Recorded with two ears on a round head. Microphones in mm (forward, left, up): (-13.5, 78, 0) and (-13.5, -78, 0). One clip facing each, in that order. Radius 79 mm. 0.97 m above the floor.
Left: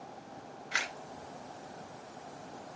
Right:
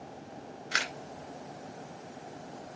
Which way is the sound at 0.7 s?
60° right (ahead or behind).